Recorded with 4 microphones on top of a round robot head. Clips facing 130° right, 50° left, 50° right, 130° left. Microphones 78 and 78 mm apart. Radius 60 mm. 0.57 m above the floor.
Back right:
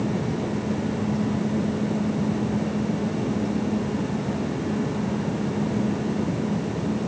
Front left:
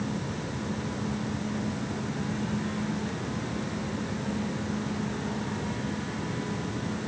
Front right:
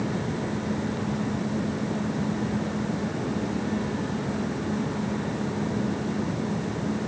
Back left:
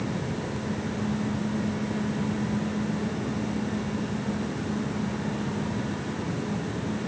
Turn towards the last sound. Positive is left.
No sound to turn to.